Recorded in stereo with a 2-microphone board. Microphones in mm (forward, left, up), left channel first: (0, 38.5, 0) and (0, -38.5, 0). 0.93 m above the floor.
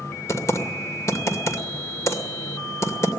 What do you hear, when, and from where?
0.3 s typing on a keyboard: 40° left (ahead or behind), 2.5 m